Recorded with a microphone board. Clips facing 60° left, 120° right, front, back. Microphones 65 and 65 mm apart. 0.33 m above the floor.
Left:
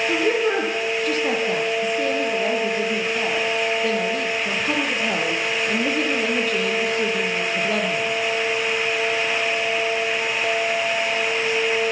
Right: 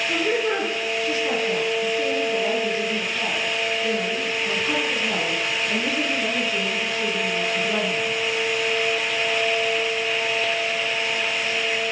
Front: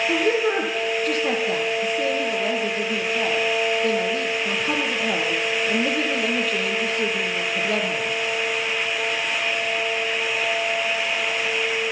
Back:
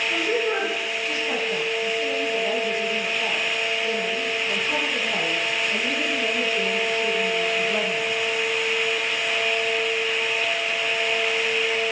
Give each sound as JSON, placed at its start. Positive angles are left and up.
{"t": 0.1, "sound": "a woman speaking", "azimuth_deg": 30, "distance_m": 8.5}